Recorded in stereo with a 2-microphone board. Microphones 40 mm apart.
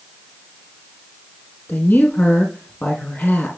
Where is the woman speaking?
50° left (ahead or behind), 3.5 m.